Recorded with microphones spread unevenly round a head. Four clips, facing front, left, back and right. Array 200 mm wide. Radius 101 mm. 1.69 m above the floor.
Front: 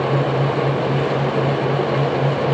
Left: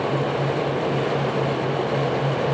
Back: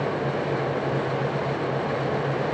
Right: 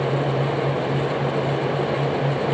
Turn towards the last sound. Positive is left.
No sound to turn to.